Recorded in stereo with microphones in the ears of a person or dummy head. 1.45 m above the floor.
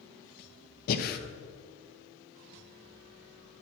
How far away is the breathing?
About 0.7 m.